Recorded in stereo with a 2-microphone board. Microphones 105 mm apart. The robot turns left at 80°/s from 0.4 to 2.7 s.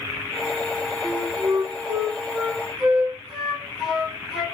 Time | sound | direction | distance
1.0 | a flute | 45° right | 1.1 m